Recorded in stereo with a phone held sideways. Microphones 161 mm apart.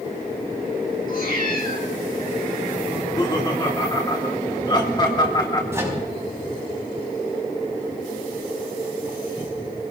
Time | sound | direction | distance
1.1 | a cat meowing | 70° left (ahead or behind) | 5 m
2.9 | laughter | 30° left (ahead or behind) | 3 m
5.7 | a microwave | 15° right (ahead or behind) | 5 m